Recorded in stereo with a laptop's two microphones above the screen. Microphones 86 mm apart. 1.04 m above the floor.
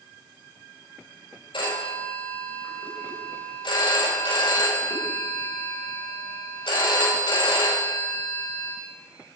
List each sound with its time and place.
1.5 s a phone ringing: 85° left, 2.5 m